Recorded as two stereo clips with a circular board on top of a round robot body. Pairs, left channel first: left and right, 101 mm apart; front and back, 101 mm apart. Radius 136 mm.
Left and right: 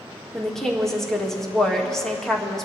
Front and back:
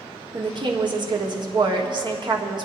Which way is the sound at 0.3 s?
175° left.